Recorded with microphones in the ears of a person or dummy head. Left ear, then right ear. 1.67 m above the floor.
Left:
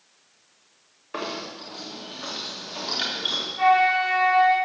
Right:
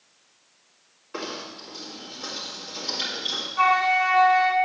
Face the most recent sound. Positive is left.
turn(degrees=-45)  # may be behind; listen again after turning